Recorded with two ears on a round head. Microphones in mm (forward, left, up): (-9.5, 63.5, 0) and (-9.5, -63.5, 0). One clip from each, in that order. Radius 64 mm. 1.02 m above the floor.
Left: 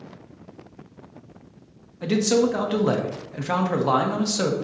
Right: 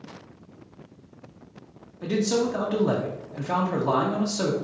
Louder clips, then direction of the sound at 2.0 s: Left 4 dB; 60° left (ahead or behind).